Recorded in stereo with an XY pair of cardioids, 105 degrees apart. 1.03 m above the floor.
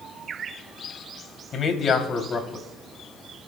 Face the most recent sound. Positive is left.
turn(degrees=40)